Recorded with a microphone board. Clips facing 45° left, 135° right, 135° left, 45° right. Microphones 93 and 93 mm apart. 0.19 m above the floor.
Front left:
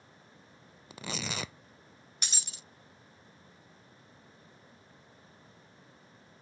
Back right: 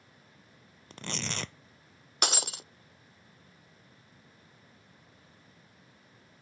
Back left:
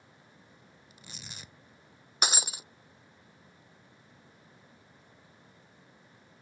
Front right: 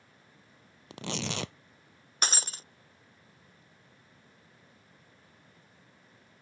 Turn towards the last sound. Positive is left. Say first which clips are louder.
# back right 16 dB, back left 2 dB
turn(degrees=-145)